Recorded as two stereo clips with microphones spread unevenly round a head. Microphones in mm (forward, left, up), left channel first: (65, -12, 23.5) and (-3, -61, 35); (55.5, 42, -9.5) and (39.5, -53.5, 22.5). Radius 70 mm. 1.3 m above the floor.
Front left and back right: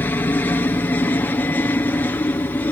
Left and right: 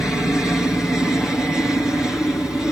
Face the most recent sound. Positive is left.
turn(degrees=15)